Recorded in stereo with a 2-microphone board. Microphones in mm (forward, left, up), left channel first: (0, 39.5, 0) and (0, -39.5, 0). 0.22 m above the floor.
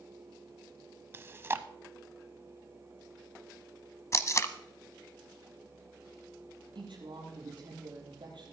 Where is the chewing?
30° right (ahead or behind), 0.7 m.